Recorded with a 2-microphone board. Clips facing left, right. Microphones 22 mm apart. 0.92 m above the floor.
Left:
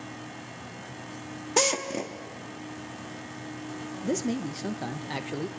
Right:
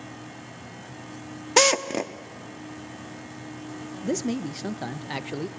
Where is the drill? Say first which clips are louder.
Right 6 dB; 35° right (ahead or behind), 1.1 m.